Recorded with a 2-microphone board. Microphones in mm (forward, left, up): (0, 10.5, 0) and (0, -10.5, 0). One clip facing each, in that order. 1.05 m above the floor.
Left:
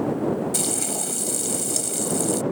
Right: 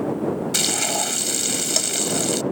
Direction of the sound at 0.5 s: 50° right (ahead or behind).